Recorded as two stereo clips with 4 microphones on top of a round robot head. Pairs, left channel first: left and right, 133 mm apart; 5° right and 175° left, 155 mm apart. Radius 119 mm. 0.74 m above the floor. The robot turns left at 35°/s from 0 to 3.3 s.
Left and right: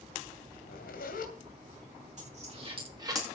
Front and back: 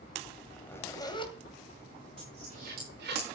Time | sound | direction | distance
0.6 | a zipper | 80° left | 2.5 m
2.2 | a dropped coin | 120° right | 7.5 m